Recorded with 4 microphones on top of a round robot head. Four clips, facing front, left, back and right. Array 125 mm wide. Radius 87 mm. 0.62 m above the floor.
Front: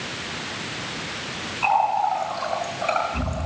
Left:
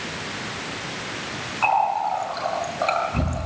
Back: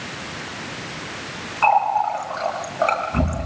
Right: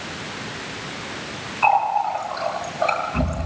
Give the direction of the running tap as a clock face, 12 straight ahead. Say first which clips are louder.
Right 2 dB, back 3 dB; 7 o'clock.